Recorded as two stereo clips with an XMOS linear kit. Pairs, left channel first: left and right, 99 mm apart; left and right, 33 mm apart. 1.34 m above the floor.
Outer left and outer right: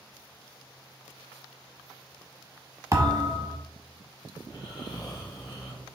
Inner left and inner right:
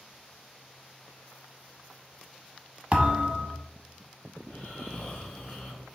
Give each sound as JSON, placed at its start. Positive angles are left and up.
{"t": 2.9, "sound": "a thud", "side_deg": -30, "distance_m": 0.9}
{"t": 4.4, "sound": "snoring", "side_deg": 45, "distance_m": 1.6}